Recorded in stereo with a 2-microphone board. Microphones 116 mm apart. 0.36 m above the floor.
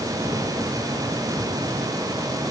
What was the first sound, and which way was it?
Only background noise.